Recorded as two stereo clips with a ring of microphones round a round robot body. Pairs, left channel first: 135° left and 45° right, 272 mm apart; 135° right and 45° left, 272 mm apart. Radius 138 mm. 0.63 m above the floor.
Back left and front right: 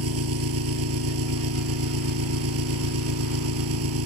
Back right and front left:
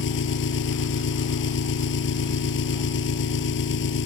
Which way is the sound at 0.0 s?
85° right.